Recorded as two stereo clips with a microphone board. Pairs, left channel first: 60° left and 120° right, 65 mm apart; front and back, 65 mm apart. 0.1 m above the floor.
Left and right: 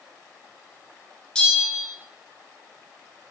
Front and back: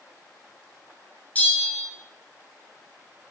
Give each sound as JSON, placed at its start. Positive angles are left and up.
{"t": 1.4, "sound": "a bell", "azimuth_deg": 5, "distance_m": 1.5}